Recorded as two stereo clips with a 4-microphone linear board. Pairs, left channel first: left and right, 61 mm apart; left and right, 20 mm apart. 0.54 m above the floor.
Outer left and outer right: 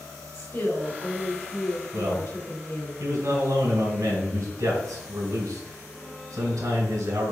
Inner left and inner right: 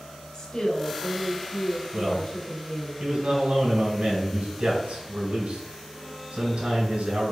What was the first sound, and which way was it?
A woman speaking, 55° left (ahead or behind).